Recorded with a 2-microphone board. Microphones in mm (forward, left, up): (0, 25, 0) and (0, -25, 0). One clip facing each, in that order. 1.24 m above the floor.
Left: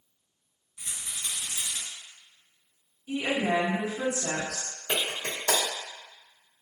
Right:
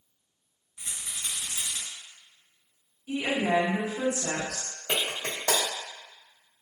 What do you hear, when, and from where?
0.8 s a rattle: 30° right (ahead or behind), 1.8 m
3.1 s a woman speaking: 50° right (ahead or behind), 1.5 m
4.9 s a clap: 65° right (ahead or behind), 1.7 m